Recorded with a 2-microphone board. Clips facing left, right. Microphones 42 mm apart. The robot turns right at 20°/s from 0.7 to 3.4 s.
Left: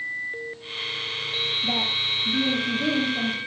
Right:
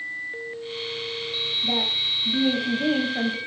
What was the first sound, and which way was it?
A woman speaking, 175° left.